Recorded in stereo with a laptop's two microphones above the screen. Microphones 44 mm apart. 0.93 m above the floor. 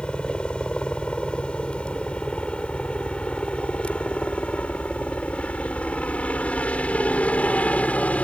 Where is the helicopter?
25° left (ahead or behind); by 8.2 s 35° left (ahead or behind).